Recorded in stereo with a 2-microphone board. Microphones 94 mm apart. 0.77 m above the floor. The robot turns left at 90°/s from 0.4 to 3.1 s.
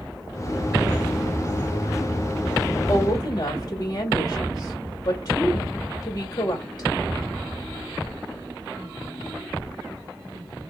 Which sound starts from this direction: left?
A woman speaking, at 2.9 s.